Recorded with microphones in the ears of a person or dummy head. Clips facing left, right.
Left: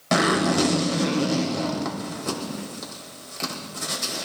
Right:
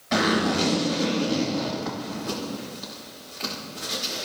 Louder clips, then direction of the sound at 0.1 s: Left 2 dB; 60° left (ahead or behind).